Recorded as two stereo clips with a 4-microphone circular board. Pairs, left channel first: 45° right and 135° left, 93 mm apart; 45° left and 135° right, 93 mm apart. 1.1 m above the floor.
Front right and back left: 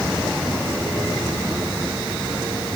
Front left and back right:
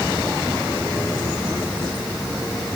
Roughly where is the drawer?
No drawer in this recording.